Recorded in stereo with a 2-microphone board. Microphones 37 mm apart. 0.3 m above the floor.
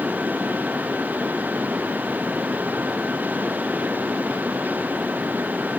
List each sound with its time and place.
Only background noise.